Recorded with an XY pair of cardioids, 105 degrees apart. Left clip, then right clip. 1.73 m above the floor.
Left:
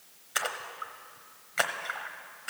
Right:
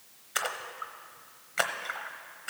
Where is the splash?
Straight ahead, 1.0 m.